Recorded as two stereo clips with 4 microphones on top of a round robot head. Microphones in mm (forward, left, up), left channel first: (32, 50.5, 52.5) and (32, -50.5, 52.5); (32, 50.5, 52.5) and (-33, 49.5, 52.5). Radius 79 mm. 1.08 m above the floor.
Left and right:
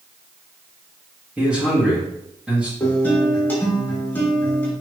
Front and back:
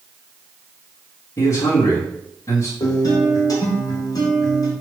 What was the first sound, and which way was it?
A man speaking, 10° right.